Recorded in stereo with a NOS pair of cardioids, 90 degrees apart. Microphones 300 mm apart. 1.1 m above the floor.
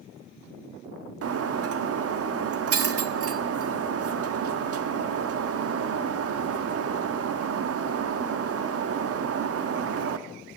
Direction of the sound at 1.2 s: 50° right.